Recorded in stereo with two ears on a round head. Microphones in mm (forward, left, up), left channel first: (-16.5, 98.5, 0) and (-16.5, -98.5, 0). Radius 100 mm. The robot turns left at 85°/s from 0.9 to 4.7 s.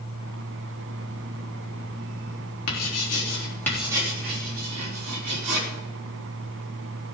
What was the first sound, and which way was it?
Writing, 85° left.